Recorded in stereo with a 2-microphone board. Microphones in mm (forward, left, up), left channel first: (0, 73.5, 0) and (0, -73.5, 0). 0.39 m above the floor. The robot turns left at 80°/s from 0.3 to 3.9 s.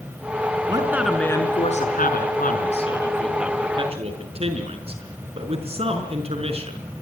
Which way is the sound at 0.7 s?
145° right.